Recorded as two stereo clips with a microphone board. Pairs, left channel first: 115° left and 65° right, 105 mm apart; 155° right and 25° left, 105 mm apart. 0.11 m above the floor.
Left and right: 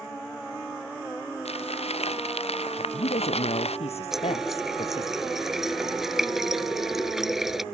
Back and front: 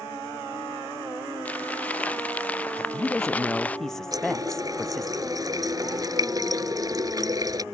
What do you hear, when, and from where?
1.4 s crumpling: 125° left
2.8 s a woman speaking: 115° left
4.1 s a running tap: 15° left